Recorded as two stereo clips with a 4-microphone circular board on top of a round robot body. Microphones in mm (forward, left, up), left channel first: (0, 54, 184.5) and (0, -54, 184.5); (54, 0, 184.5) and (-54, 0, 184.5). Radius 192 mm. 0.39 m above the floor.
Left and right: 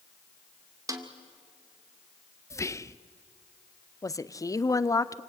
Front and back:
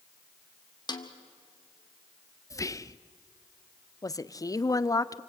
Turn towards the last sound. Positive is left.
turn(degrees=45)